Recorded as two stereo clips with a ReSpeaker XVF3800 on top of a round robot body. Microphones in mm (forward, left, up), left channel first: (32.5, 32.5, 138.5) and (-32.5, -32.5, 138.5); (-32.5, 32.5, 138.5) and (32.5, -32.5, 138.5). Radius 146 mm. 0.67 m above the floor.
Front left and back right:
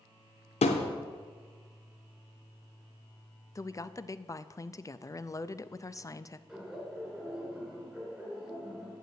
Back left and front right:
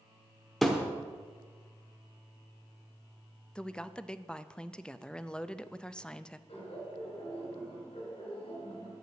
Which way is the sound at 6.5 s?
140° left.